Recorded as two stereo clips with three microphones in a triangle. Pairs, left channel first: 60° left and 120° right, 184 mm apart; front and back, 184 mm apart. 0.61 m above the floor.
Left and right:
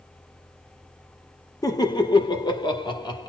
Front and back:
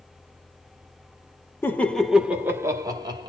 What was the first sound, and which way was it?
Laughter, 50° left.